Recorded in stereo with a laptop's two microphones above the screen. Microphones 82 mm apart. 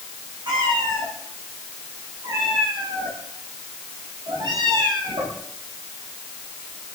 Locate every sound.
0.5 s a cat meowing: 80° right, 9 m